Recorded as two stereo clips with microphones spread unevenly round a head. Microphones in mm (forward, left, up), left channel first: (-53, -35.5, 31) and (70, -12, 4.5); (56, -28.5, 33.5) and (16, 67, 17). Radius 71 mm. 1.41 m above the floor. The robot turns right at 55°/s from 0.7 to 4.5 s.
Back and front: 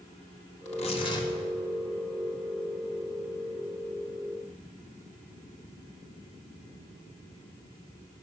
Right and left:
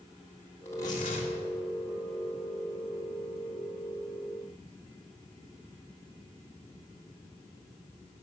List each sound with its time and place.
0.7 s tearing paper: 140° right, 1.8 m; by 1.3 s 105° right, 1.8 m